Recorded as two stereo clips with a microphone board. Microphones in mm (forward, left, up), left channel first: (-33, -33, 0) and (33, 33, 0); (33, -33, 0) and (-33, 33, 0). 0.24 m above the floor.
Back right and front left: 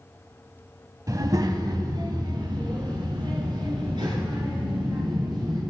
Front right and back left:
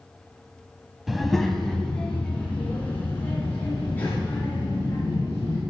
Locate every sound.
1.1 s a child speaking: 45° left, 0.8 m; by 5.6 s 20° left, 3 m